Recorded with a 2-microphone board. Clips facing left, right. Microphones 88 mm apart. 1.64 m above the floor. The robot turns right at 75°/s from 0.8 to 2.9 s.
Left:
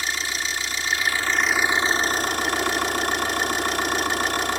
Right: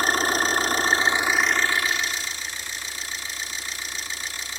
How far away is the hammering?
No hammering in this recording.